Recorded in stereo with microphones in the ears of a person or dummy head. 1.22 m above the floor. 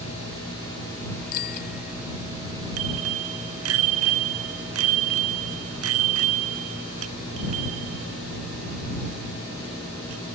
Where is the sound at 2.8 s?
75° right (ahead or behind).